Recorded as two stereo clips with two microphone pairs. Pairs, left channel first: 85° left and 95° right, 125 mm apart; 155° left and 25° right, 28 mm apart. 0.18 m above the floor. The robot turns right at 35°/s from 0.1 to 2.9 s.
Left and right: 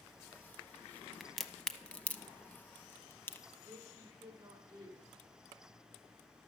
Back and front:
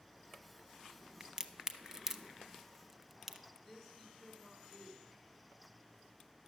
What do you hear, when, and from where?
1.2 s a crack: 5° right, 0.5 m; by 3.4 s 55° left, 0.5 m
3.6 s a woman speaking: 130° right, 1.2 m